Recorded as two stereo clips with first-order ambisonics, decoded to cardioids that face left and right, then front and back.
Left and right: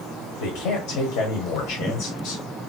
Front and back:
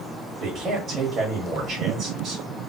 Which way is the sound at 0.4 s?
110° left.